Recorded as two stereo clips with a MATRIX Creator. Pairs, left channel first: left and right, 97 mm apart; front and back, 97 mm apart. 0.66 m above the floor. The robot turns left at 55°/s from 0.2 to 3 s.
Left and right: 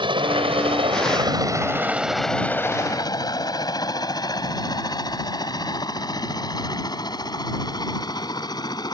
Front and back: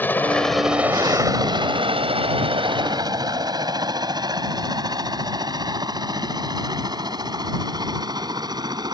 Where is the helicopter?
70° right; by 8.9 s 135° left.